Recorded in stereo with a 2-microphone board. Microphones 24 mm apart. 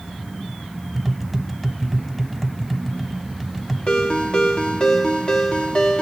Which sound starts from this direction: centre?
Tapping, at 0.9 s.